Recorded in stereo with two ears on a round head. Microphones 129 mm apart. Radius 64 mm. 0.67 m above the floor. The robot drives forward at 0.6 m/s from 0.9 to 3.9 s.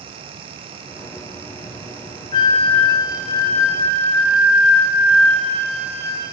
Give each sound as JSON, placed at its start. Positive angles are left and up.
{"t": 2.3, "sound": "a flute", "side_deg": 40, "distance_m": 0.5}